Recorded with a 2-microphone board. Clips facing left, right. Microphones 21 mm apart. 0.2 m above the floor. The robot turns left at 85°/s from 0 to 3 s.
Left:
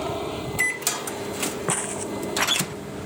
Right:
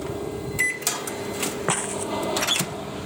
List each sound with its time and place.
0.0 s an aircraft: 55° left (ahead or behind); by 3.1 s 45° right (ahead or behind)
1.7 s footsteps: 30° right (ahead or behind); by 3.1 s 10° left (ahead or behind)